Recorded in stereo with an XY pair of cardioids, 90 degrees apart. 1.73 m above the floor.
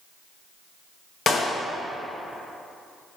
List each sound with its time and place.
1.3 s a clap: 55° left, 2.0 m